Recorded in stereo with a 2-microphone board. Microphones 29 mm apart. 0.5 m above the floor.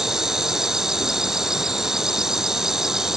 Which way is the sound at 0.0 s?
15° right (ahead or behind).